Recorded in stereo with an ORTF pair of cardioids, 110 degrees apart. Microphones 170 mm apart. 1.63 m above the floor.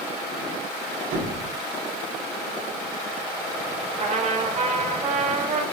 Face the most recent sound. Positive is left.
turn(degrees=-45)